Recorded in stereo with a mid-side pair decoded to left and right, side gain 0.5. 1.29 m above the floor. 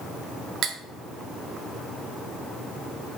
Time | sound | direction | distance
0.6 | cutlery clinking | 70° right | 1.7 m